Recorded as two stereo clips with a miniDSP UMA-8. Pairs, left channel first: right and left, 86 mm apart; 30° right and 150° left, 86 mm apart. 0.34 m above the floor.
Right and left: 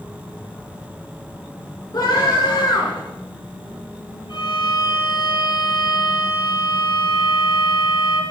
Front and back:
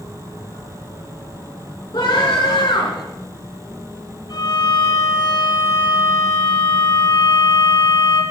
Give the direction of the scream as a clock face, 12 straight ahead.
2 o'clock.